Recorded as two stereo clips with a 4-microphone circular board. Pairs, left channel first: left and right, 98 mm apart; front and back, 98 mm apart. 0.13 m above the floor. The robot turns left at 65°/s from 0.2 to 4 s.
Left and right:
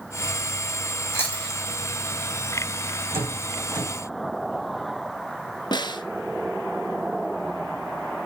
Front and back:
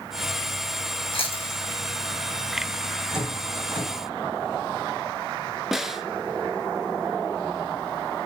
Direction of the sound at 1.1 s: 25° left.